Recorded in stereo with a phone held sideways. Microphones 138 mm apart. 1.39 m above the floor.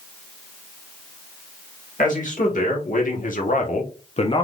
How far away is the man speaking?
About 1.6 m.